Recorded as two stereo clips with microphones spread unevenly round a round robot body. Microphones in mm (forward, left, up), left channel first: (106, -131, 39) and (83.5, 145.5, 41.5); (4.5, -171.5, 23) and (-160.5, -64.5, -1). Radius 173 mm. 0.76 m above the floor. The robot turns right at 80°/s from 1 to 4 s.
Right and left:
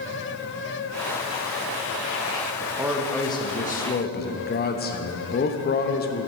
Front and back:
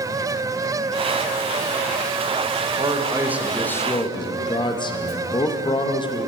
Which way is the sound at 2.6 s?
155° left.